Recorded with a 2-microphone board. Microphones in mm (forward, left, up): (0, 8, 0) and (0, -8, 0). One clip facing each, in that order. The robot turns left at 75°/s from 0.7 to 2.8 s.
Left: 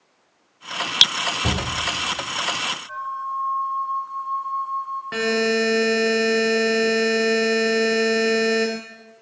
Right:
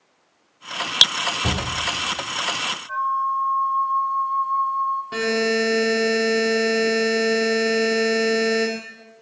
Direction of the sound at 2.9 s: 5° right (ahead or behind).